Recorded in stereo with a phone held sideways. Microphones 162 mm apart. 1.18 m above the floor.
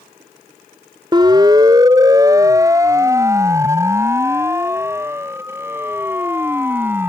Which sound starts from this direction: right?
A siren, at 1.1 s.